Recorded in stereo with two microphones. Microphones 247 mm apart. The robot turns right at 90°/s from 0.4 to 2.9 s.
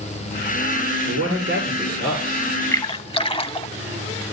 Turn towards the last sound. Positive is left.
turn(degrees=20)  # may be behind; listen again after turning